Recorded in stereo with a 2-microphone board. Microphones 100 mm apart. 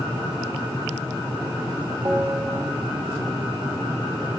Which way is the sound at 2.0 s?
30° right (ahead or behind).